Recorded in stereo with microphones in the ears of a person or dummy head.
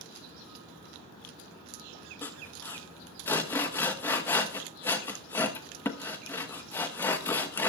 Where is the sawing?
15° left (ahead or behind), 1.0 m.